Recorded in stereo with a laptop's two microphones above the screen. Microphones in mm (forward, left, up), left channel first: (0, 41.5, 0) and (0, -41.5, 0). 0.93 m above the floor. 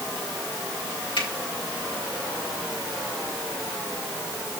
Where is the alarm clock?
No alarm clock in this recording.